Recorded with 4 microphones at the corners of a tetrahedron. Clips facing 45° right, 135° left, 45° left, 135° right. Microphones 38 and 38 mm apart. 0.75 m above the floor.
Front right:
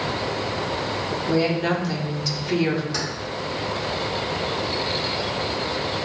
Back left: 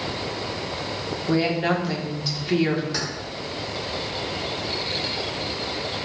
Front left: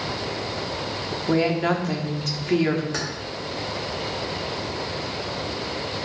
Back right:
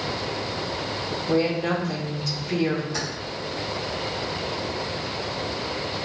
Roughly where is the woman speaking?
Ahead left.